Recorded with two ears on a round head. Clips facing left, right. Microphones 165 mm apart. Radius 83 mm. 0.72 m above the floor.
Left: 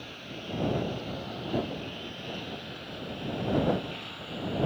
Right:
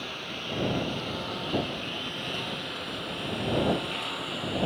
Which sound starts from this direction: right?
A lawn mower, at 0.0 s.